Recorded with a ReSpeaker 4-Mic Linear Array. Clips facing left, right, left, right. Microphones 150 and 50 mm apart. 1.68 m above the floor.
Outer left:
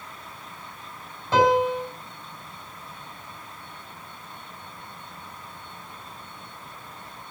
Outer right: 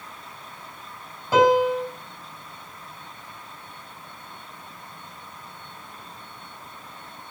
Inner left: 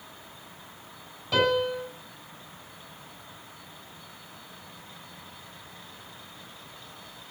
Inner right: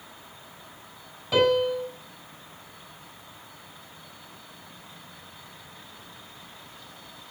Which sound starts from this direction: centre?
A piano, at 1.3 s.